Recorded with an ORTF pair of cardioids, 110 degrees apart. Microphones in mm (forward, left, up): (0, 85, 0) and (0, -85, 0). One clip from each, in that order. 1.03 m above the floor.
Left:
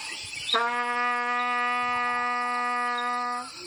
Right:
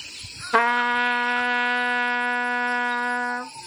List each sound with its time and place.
0.5 s a trumpet: 60° right, 0.7 m